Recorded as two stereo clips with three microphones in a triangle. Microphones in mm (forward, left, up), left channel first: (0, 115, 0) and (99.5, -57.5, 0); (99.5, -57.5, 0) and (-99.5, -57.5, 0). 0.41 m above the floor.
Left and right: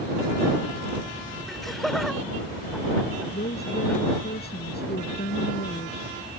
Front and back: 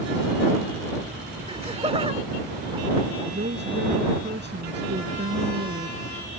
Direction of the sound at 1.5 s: 150° right.